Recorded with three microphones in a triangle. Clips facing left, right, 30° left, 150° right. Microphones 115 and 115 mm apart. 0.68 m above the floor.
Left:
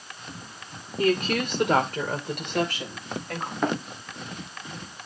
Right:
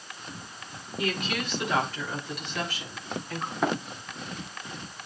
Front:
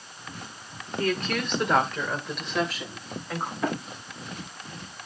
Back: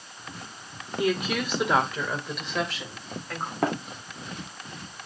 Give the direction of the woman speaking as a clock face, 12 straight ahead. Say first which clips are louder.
Left 7 dB, back 1 dB; 7 o'clock.